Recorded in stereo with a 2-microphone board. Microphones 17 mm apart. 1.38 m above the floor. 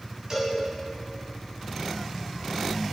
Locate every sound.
0.3 s a cowbell: 35° right (ahead or behind), 8 m